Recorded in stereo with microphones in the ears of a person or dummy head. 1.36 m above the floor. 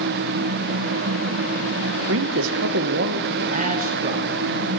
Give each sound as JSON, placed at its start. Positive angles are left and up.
{"t": 2.1, "sound": "a man speaking", "side_deg": -75, "distance_m": 0.8}